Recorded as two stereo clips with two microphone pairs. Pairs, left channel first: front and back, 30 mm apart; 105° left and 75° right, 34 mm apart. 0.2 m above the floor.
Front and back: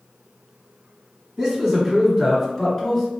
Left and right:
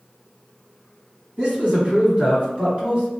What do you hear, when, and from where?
1.4 s a man speaking: 110° right, 1.9 m; by 3.1 s 55° right, 1.7 m